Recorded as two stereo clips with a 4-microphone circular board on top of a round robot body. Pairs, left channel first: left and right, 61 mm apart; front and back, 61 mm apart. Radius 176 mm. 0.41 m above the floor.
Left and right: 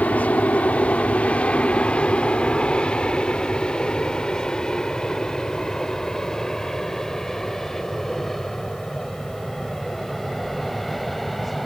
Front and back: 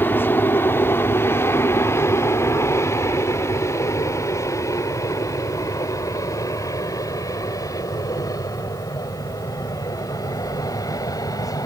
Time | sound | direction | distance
0.0 | an aircraft | 35° left | ?